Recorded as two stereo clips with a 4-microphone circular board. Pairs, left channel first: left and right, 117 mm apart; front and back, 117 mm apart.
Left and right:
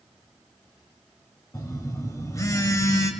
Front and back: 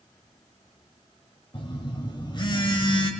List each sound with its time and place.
1.5 s a phone buzzing: 35° left, 1.0 m